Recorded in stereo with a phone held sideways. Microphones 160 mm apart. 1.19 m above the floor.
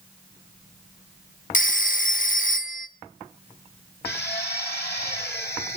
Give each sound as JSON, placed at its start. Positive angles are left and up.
{"t": 1.5, "sound": "a phone ringing", "side_deg": 55, "distance_m": 0.9}
{"t": 4.0, "sound": "a drill", "side_deg": 85, "distance_m": 2.5}